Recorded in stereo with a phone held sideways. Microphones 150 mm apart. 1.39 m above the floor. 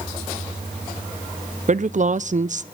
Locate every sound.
1.7 s a woman speaking: 55° right (ahead or behind), 0.7 m